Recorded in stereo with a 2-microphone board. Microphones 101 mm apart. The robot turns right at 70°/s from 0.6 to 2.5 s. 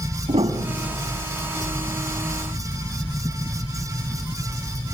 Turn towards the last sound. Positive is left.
turn(degrees=55)